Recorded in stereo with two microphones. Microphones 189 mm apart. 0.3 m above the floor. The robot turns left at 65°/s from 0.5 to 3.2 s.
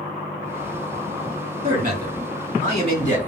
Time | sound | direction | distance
1.6 | a man speaking | 65° right | 2.5 m